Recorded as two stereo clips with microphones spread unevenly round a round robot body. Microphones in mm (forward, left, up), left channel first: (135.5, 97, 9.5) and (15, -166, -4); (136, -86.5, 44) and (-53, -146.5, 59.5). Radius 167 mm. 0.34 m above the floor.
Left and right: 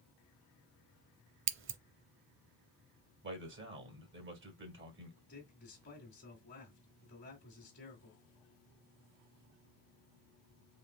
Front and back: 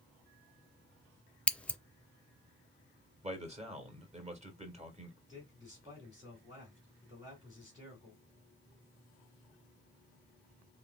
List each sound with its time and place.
1.5 s scissors: 65° right, 0.6 m
3.2 s a man speaking: 115° right, 1.6 m
5.3 s a man speaking: 125° left, 1.8 m